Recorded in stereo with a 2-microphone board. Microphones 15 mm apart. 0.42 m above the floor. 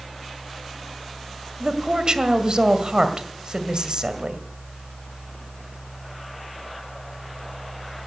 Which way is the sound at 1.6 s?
55° right (ahead or behind).